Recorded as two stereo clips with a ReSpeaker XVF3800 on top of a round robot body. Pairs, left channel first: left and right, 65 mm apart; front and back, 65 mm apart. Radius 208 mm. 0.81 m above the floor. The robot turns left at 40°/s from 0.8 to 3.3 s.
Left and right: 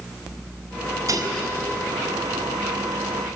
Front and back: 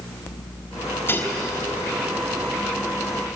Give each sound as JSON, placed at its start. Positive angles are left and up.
{"t": 1.1, "sound": "dishes clattering", "azimuth_deg": -55, "distance_m": 4.5}